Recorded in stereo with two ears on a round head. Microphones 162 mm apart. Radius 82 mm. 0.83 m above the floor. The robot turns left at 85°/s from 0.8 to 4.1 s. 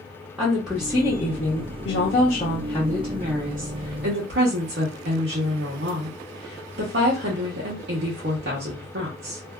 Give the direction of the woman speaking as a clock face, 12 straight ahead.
6 o'clock.